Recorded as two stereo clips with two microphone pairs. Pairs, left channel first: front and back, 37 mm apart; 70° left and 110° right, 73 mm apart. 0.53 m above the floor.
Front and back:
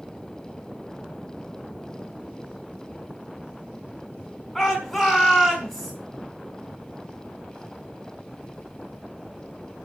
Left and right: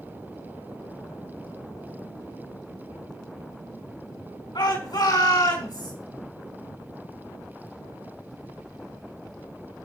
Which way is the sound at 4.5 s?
85° left.